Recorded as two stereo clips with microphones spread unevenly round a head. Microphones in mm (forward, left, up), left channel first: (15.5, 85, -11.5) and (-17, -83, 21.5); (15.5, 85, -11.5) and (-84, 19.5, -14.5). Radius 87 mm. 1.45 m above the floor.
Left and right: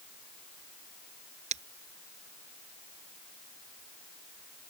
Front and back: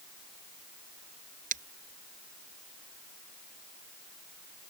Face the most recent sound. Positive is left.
turn(degrees=-155)